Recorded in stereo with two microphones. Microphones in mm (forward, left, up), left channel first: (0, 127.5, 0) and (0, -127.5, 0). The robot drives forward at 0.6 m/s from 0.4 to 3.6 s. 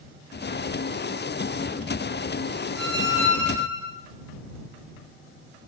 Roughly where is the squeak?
Right.